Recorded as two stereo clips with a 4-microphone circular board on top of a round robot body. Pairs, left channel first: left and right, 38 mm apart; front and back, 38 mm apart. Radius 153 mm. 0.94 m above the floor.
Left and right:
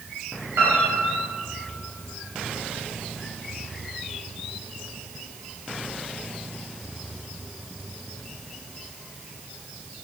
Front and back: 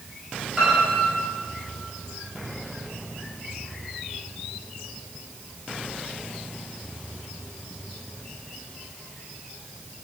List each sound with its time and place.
0.6 s a piano: 100° right, 4.5 m